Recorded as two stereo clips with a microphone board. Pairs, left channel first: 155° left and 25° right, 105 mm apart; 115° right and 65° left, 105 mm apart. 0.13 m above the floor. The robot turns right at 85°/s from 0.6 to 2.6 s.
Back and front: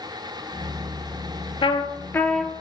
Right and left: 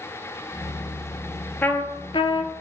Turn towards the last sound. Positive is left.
turn(degrees=-100)